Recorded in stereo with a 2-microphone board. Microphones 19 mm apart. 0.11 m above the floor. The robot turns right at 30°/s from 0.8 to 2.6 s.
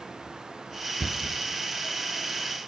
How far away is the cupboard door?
About 1.4 m.